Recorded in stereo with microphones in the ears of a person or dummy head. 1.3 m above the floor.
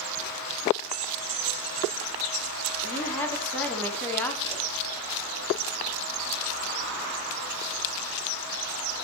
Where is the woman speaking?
10° left (ahead or behind), 3 m.